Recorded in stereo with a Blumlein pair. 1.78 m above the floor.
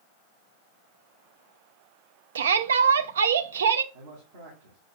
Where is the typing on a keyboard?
No typing on a keyboard in this recording.